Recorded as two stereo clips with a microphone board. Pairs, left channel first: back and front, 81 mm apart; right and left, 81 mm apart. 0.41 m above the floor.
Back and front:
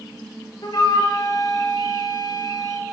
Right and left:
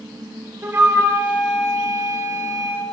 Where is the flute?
155° left, 8 m.